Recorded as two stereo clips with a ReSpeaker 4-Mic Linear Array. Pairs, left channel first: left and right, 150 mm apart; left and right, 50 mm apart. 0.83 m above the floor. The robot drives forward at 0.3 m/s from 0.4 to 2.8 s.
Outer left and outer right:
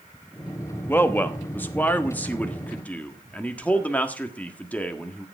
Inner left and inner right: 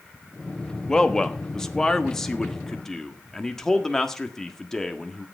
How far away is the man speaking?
About 1.0 m.